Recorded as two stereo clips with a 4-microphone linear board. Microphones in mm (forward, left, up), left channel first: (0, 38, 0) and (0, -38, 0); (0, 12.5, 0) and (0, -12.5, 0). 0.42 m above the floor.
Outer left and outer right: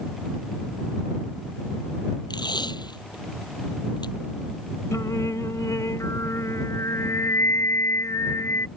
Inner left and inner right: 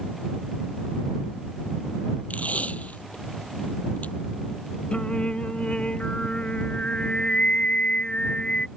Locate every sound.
2.3 s tape being pulled: 70° left (ahead or behind)
4.9 s singing: 45° left (ahead or behind)